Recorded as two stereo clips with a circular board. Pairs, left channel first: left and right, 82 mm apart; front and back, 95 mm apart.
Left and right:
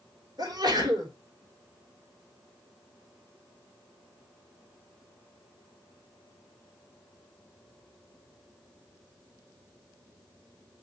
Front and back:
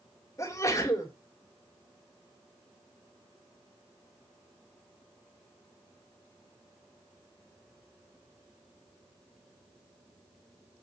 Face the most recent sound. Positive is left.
turn(degrees=-55)